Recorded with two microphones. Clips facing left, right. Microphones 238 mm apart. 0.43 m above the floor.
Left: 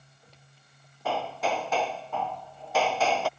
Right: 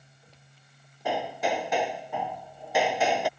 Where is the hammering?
15° right (ahead or behind).